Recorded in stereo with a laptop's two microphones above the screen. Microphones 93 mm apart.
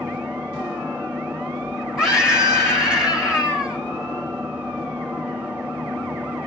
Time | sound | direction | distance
0.0 | an engine running | 15° right (ahead or behind) | 2 m
2.0 | a scream | 10° right (ahead or behind) | 4 m